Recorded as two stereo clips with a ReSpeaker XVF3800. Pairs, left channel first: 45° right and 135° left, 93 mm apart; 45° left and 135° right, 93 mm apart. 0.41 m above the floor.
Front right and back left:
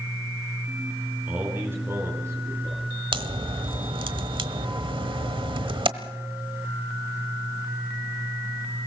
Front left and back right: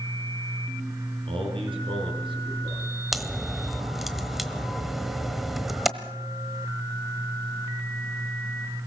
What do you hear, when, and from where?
1.3 s a man speaking: 150° right, 5 m; by 3.0 s 170° right, 7 m
3.1 s a crack: 135° left, 1.2 m